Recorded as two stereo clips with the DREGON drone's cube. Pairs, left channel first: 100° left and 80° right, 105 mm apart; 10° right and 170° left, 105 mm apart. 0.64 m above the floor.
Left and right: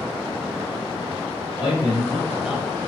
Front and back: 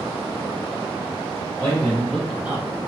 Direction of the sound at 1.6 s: 50° left.